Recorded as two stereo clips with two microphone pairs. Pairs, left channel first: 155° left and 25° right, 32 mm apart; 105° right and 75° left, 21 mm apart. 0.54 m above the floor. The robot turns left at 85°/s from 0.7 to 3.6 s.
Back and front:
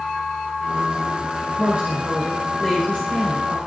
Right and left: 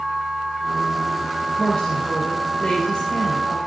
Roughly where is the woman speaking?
Ahead right.